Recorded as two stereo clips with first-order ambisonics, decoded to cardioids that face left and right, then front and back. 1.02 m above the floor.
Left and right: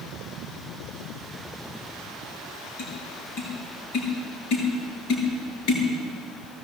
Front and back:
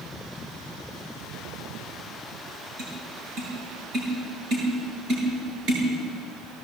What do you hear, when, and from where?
2.8 s tapping: 130° left, 8.5 m